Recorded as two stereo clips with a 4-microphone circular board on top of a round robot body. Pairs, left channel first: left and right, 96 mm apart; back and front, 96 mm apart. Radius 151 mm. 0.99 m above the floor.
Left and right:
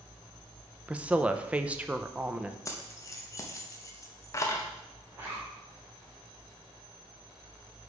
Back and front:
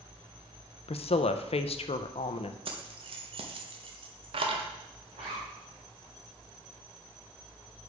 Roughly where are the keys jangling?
Ahead left.